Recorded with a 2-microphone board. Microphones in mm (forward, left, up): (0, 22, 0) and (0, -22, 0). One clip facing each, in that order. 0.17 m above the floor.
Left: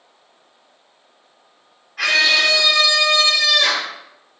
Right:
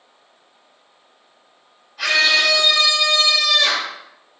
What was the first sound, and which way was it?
A scream, 60° left (ahead or behind).